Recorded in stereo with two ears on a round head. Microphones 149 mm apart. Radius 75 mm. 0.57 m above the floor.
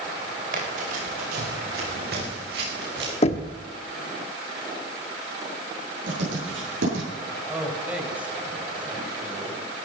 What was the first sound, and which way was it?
Running footsteps, 50° right (ahead or behind).